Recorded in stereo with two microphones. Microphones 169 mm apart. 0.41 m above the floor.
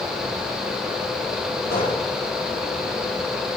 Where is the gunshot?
65° left (ahead or behind), 8.5 m.